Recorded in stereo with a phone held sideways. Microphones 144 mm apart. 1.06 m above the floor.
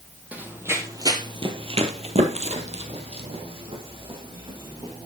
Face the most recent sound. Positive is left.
turn(degrees=-35)  # may be behind; listen again after turning